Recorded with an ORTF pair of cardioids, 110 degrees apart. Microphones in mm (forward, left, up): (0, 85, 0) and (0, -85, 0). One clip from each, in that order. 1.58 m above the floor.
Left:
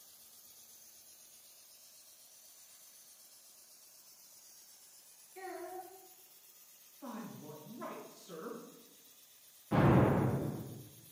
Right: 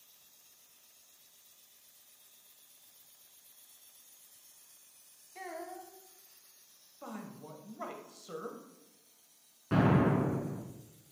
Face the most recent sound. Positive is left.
turn(degrees=-65)